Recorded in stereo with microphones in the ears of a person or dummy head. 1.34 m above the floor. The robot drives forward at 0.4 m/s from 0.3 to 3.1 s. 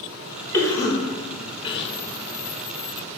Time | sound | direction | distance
0.5 | a cough | 15° left (ahead or behind) | 1.0 m